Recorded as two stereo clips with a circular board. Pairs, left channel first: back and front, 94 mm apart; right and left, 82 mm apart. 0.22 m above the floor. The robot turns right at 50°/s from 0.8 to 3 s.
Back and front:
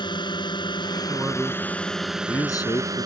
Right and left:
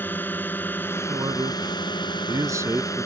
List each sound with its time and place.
0.0 s a drone: 155° right; by 3.1 s 45° right
1.1 s a man speaking: 60° left; by 3.1 s 160° left